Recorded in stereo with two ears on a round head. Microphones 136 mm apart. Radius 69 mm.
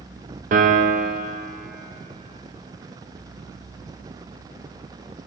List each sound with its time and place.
0.5 s a piano: 55° right (ahead or behind), 0.6 m